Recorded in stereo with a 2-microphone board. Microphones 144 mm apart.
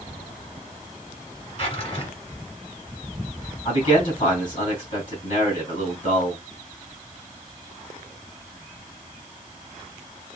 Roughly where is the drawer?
Left.